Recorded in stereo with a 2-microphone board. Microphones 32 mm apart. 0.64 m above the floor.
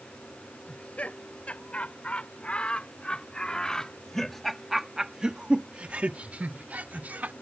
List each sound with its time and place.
0.7 s laughter: 45° left (ahead or behind); by 7.3 s 55° right (ahead or behind)